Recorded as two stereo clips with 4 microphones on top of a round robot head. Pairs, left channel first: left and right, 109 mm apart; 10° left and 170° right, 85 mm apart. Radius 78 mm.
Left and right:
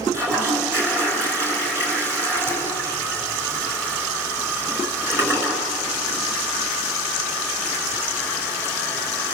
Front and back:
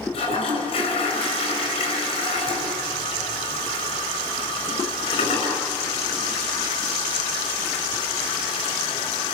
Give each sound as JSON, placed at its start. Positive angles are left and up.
{"t": 0.1, "sound": "a toilet flushing", "azimuth_deg": -20, "distance_m": 5.0}